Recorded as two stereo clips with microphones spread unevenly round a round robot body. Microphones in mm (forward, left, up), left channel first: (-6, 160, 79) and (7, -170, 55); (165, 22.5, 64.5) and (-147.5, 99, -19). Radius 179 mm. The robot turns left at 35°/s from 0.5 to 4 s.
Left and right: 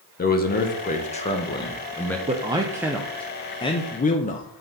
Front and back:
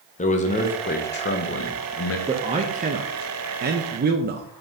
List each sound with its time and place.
0.2 s a man speaking: 60° left, 1.0 m; by 2.2 s straight ahead, 1.0 m
2.3 s a man speaking: 145° right, 0.6 m; by 4.5 s 155° left, 0.6 m